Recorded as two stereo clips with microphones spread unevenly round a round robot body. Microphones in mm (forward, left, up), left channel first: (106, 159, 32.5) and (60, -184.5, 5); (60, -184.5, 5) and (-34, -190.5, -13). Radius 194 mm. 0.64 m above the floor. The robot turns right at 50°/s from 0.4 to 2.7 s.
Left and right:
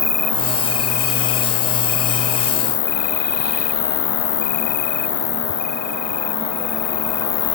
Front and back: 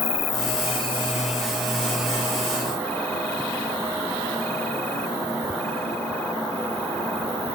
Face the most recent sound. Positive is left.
turn(degrees=130)